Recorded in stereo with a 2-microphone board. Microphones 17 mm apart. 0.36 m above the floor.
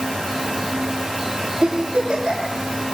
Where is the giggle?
80° right, 9 m.